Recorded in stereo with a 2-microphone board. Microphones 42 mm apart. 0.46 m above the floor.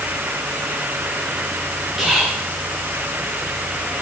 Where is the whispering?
5° right (ahead or behind), 1.8 m.